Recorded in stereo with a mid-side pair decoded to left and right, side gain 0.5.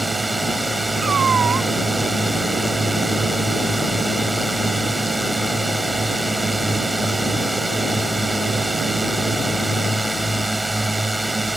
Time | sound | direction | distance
0.0 | a drone | 10° right | ?
1.0 | a cat meowing | 40° right | ?